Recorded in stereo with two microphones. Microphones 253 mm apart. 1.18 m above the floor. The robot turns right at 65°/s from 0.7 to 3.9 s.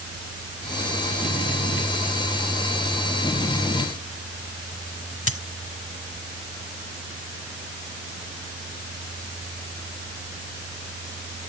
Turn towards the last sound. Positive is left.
turn(degrees=65)  # may be behind; listen again after turning